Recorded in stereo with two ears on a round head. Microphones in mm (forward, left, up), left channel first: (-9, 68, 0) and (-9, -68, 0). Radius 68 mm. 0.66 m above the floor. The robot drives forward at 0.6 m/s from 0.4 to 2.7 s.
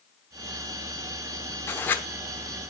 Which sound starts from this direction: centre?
Writing, at 1.7 s.